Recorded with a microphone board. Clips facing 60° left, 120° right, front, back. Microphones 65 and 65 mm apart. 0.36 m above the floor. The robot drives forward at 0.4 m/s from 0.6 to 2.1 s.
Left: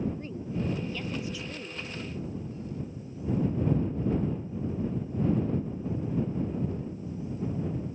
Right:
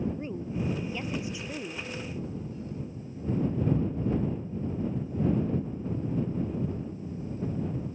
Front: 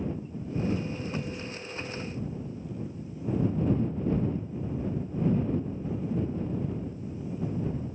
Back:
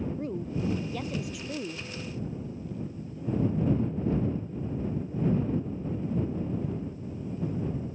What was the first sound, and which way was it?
A woman speaking, 170° left.